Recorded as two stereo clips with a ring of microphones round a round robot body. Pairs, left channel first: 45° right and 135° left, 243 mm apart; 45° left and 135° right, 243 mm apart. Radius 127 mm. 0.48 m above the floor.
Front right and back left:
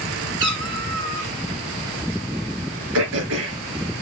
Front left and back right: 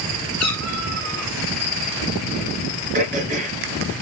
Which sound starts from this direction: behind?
Throat clearing, at 2.9 s.